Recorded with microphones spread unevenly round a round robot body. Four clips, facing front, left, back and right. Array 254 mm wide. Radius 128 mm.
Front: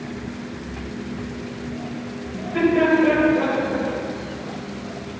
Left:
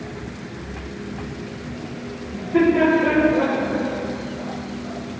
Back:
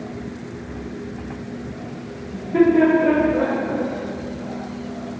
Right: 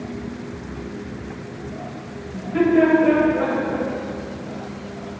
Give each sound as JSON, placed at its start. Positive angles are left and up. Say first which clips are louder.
{"t": 2.3, "sound": "laughter", "louder": "even, back 4 dB", "azimuth_deg": 140, "distance_m": 2.5}